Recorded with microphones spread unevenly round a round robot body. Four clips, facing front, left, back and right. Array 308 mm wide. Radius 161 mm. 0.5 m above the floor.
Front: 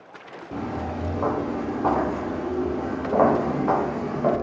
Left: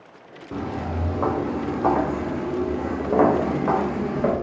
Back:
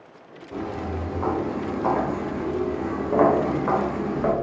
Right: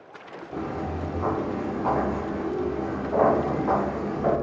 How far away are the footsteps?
About 3 m.